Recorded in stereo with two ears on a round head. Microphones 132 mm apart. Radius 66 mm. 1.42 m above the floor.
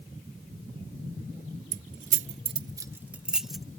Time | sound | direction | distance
1.7 | keys jangling | 55° right (ahead or behind) | ?